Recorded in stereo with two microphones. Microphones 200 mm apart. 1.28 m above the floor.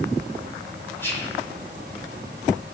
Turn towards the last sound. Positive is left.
turn(degrees=10)  # may be behind; listen again after turning